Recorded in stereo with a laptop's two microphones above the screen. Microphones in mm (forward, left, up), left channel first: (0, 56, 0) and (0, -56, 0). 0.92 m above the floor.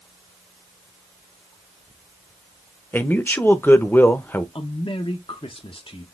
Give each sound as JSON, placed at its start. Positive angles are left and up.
{"t": 2.9, "sound": "a man speaking", "side_deg": 20, "distance_m": 0.7}
{"t": 4.5, "sound": "a man speaking", "side_deg": 55, "distance_m": 0.6}